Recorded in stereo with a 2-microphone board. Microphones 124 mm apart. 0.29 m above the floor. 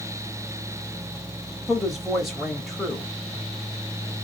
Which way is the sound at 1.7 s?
Centre (ahead or behind).